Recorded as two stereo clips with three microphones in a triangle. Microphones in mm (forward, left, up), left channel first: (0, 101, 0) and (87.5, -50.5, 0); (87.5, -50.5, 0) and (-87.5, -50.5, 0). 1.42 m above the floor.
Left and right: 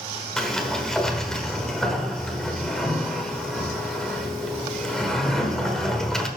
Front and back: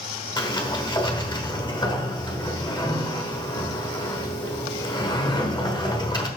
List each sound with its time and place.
0.4 s a sliding door: 35° left, 1.2 m